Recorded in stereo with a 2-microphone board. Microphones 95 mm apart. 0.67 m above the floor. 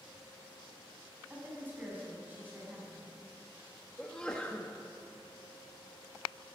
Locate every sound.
1.3 s a woman speaking: 20° right (ahead or behind), 5.5 m
4.0 s a sneeze: 10° left (ahead or behind), 1.1 m